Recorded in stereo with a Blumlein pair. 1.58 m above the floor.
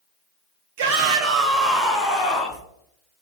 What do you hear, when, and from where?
0.8 s a shout: 50° right, 0.8 m; by 2.6 s 30° left, 1.2 m